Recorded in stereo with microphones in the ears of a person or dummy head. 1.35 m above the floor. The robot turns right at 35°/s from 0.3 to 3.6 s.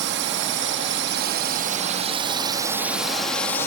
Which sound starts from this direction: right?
A drone, at 0.0 s.